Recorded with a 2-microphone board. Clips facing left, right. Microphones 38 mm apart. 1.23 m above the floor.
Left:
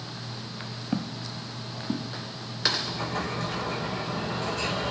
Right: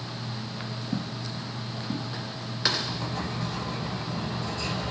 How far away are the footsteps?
About 1.7 m.